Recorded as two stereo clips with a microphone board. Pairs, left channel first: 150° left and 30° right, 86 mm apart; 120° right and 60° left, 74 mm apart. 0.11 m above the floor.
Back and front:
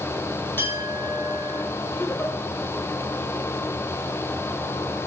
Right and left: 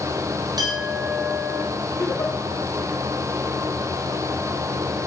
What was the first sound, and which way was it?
A clink, 85° left.